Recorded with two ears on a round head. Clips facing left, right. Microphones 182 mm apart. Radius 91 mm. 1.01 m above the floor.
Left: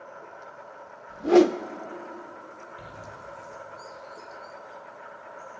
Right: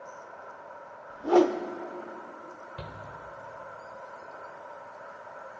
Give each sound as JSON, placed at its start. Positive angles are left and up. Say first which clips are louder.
{"t": 0.0, "sound": "an insect", "louder": "left 1 dB", "side_deg": 80, "distance_m": 6.5}
{"t": 1.1, "sound": "a whoosh", "louder": "left 4 dB", "side_deg": 25, "distance_m": 0.7}
{"t": 2.8, "sound": "a shout", "louder": "right 2 dB", "side_deg": -70, "distance_m": 3.5}